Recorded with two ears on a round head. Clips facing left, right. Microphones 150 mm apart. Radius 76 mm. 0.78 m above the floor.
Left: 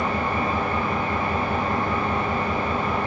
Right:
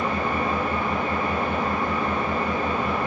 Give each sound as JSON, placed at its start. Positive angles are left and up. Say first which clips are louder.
{"t": 0.0, "sound": "an engine running", "louder": "even", "side_deg": -50, "distance_m": 1.7}